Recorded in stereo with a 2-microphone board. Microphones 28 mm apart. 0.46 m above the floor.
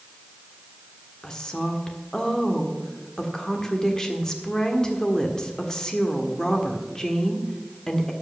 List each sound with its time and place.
1.2 s a woman speaking: 20° left (ahead or behind), 1.4 m